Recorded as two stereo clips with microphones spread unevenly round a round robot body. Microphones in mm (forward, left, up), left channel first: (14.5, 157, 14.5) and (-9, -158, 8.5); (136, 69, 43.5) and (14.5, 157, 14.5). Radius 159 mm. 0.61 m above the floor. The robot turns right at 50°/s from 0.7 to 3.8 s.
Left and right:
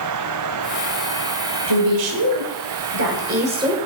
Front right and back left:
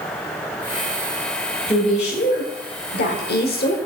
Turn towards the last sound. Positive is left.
turn(degrees=-10)